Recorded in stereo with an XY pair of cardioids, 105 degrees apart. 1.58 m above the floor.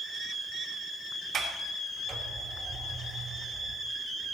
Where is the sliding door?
55° right, 4 m.